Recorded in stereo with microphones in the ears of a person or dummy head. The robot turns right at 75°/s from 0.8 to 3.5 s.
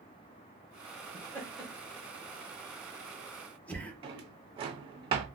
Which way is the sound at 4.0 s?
25° right (ahead or behind).